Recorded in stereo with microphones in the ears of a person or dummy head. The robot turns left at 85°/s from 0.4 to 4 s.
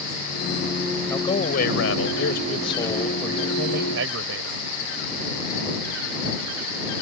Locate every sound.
1.1 s a man speaking: 170° left; by 4.6 s 80° right